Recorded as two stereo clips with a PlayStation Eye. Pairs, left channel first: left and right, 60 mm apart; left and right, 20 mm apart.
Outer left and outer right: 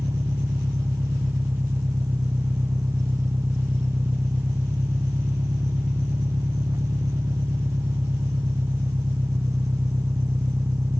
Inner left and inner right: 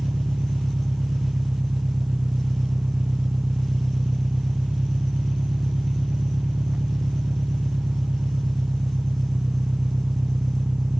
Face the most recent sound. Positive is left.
turn(degrees=-70)  # may be behind; listen again after turning